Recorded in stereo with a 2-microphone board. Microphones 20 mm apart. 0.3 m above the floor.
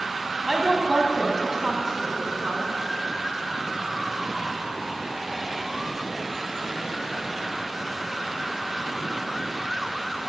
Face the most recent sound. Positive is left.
turn(degrees=-25)  # may be behind; listen again after turning